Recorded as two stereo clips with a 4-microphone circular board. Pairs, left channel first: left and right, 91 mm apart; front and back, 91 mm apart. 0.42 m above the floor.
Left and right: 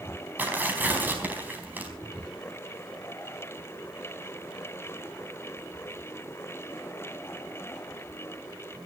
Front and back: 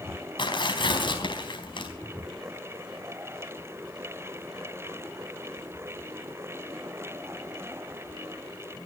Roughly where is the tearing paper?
Ahead.